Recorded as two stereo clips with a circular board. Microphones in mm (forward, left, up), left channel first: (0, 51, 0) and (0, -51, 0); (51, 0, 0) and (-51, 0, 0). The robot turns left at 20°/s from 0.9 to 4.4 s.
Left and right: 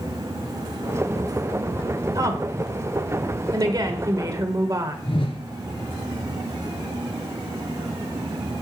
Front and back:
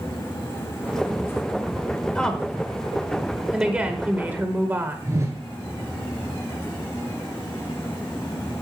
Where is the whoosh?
120° left, 2.5 m.